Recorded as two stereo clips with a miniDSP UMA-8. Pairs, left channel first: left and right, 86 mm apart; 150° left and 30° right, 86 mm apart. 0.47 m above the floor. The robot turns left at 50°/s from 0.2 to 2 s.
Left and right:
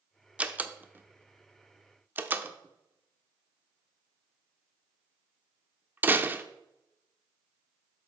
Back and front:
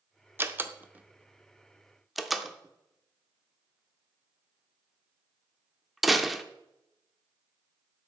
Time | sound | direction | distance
0.4 | a door slam | 35° right | 0.5 m